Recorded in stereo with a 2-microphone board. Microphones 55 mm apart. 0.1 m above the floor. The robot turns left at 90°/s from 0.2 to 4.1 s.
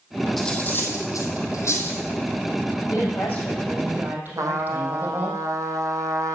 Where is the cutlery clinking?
5° left (ahead or behind), 2 m; by 2.0 s 30° left (ahead or behind), 2 m.